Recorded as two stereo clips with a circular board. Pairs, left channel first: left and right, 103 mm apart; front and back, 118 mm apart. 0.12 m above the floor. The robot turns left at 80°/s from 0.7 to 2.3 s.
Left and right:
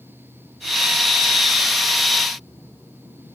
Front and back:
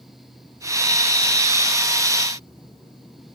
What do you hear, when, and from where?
Only background noise.